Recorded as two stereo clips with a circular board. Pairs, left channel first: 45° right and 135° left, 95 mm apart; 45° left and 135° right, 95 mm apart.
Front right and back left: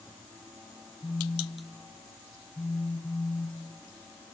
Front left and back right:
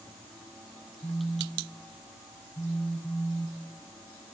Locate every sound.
1.0 s a phone buzzing: 5° left, 1.3 m